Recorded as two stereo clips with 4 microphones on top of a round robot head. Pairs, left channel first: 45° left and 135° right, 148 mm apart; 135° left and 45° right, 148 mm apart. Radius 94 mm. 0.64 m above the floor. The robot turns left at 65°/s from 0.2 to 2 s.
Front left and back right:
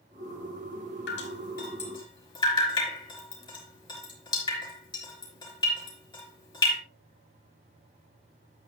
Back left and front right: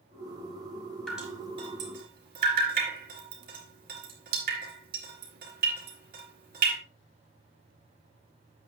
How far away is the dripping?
About 3.5 m.